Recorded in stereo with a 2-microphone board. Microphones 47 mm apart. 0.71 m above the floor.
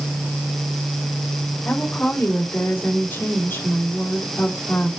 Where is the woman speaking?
60° left (ahead or behind), 2 m.